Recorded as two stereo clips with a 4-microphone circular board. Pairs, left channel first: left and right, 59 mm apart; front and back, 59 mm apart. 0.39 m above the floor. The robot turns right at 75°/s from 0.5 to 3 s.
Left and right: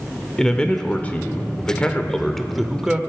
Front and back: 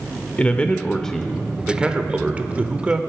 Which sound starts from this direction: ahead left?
A man speaking, at 0.4 s.